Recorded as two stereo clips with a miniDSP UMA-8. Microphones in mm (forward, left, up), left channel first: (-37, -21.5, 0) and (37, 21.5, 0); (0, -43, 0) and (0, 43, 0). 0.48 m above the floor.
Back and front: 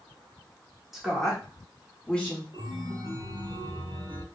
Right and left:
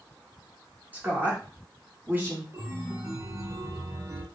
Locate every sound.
0.9 s a woman speaking: 105° left, 1.3 m; by 2.4 s 145° left, 1.7 m
2.5 s a chime: 35° left, 0.9 m